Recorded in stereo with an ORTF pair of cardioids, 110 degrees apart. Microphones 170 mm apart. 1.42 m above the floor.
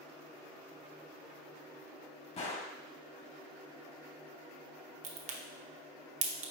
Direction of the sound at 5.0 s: 40° right.